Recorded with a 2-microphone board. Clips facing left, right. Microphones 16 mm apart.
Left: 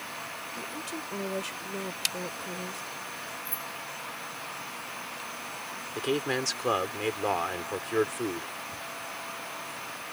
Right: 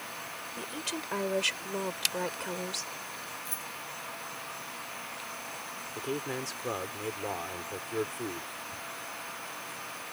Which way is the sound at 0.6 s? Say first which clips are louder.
Right 2 dB; 35° right (ahead or behind).